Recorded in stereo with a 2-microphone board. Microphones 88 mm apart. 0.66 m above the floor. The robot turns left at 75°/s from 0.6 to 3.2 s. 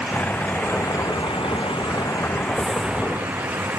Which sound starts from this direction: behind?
A vehicle, at 0.0 s.